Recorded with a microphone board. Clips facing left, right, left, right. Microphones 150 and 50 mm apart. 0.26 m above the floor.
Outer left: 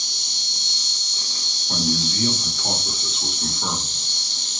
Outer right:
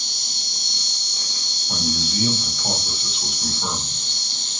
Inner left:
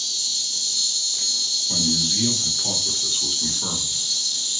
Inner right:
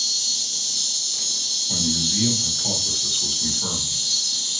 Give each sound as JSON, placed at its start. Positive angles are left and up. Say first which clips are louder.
{"t": 0.0, "sound": "an insect", "louder": "outer right 2 dB, inner right 1 dB", "side_deg": -55, "distance_m": 1.0}
{"t": 1.7, "sound": "a man speaking", "louder": "outer left 2 dB, even", "side_deg": -5, "distance_m": 1.2}